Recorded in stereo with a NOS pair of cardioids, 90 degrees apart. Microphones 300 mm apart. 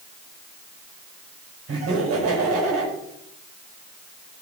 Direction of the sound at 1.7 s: 55° right.